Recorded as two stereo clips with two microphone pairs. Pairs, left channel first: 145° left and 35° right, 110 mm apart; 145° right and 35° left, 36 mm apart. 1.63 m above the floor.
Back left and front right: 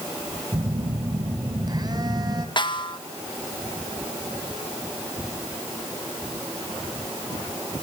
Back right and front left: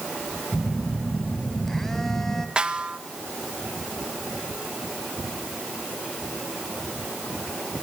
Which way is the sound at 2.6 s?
100° left.